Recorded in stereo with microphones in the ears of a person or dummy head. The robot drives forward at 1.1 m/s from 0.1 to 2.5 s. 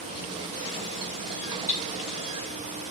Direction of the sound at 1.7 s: 15° right (ahead or behind).